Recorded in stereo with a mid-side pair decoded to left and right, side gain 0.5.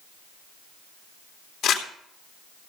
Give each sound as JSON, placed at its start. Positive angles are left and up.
{"t": 1.6, "sound": "crumpling", "azimuth_deg": 70, "distance_m": 2.5}